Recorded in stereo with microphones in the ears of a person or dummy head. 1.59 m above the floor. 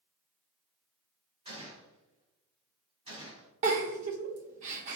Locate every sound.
1.4 s a gunshot: 30° right (ahead or behind), 2.0 m
3.6 s a giggle: 40° right (ahead or behind), 0.7 m